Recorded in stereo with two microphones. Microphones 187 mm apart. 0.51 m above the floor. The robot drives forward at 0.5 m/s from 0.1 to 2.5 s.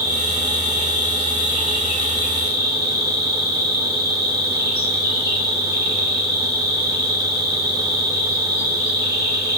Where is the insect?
50° right (ahead or behind), 1.3 m; by 9.6 s 65° right (ahead or behind), 1.1 m.